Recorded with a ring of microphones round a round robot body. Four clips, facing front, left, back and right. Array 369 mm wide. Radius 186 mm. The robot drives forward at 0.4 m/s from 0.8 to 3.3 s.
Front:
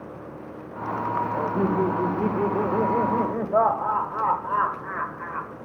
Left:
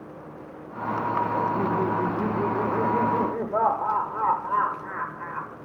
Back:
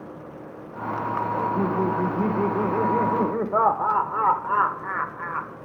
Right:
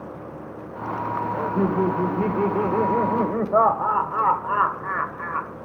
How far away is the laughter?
About 1.5 m.